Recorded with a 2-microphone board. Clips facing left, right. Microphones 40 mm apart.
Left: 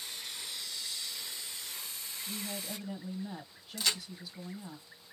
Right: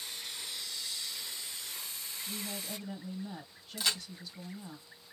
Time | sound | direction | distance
2.3 | a woman speaking | 5° left (ahead or behind) | 1.5 m
3.8 | a crack | 5° right (ahead or behind) | 2 m